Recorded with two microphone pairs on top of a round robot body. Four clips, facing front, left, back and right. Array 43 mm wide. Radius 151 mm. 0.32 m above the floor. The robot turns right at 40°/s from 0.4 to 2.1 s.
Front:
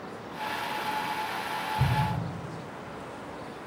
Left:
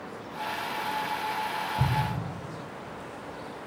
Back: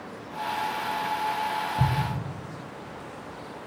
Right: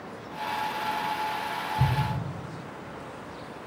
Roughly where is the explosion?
Behind left.